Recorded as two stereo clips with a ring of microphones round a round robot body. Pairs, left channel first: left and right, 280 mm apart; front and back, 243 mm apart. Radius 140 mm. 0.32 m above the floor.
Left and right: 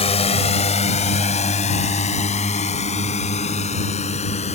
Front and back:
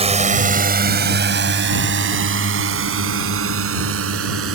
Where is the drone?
140° left; by 4.6 s 155° left.